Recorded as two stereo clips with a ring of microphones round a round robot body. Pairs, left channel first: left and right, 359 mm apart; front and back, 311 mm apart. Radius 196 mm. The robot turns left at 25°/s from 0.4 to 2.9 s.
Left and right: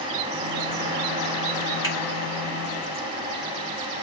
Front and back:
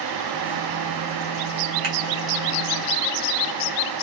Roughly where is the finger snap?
Behind.